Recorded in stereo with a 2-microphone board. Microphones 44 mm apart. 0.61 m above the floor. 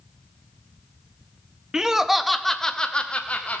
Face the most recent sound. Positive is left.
turn(degrees=30)  # may be behind; listen again after turning